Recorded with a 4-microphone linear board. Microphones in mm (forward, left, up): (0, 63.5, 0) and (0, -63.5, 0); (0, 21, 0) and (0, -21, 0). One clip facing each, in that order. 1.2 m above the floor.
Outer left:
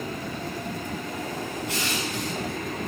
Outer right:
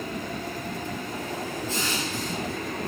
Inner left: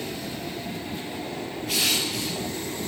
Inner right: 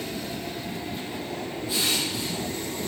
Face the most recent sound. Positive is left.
turn(degrees=70)  # may be behind; listen again after turning